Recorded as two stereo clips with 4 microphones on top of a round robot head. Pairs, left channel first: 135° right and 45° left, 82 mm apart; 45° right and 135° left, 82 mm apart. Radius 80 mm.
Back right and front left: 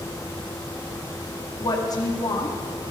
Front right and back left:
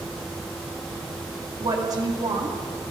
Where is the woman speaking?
Straight behind, 2.5 m.